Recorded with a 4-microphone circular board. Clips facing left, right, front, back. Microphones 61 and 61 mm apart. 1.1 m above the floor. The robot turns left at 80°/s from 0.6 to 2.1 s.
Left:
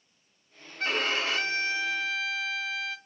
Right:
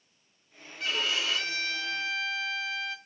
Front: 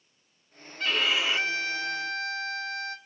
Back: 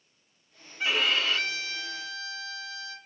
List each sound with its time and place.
0.8 s a violin: 105° left, 0.8 m; by 3.0 s 5° left, 0.8 m